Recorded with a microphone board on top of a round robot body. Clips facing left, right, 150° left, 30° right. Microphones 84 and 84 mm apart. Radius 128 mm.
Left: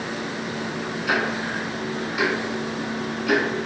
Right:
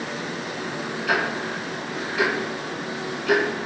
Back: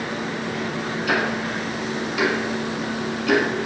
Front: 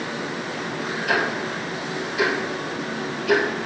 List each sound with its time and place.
1.1 s ticking: 175° left, 1.0 m